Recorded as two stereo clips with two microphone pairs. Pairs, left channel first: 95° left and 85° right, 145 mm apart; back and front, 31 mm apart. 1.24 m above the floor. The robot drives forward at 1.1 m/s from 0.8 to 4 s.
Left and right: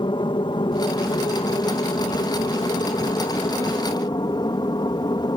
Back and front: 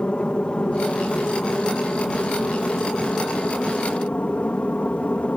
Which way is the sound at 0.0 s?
135° left.